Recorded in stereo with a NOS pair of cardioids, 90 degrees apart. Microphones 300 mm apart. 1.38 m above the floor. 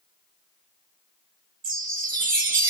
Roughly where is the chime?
Ahead right.